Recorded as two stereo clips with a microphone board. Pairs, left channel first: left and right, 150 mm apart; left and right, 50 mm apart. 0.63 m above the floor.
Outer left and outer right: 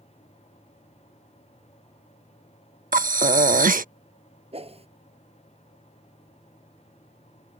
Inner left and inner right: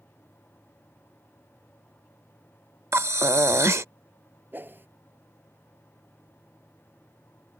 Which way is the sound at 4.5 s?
45° right (ahead or behind).